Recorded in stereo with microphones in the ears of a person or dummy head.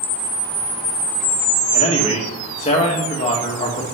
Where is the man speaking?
25° left (ahead or behind), 1.8 m.